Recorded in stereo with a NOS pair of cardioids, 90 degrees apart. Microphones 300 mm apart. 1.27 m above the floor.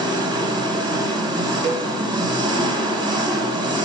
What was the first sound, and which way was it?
An engine running, 15° right.